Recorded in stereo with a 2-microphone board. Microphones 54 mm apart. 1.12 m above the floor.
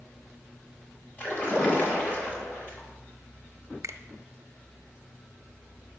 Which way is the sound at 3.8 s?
65° right (ahead or behind).